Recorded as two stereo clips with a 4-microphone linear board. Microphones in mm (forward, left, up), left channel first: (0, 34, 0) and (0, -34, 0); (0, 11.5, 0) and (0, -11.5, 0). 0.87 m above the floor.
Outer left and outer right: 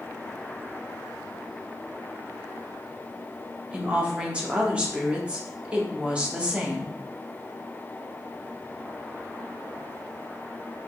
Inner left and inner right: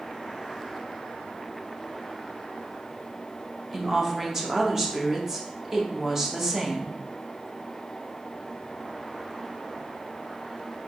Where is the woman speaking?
15° right (ahead or behind), 0.7 m.